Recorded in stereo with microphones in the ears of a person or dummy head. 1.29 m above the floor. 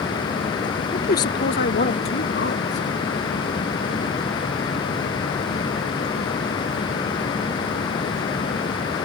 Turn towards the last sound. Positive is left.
turn(degrees=50)  # may be behind; listen again after turning